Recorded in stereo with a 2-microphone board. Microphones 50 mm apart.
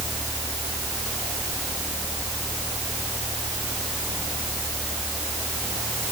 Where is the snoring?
No snoring in this recording.